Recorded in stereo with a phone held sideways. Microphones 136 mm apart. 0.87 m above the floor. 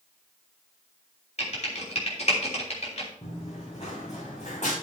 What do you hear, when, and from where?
1.4 s typing on a keyboard: 55° left (ahead or behind), 3 m
3.2 s running footsteps: 45° left (ahead or behind), 4 m; by 4.7 s 60° left (ahead or behind), 4.5 m